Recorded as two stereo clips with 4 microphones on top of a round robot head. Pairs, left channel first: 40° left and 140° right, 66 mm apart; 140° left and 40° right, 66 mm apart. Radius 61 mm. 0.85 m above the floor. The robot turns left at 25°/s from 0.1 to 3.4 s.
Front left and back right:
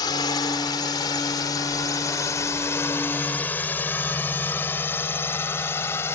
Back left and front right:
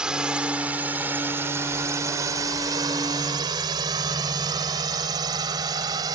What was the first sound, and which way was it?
A drone, 35° left.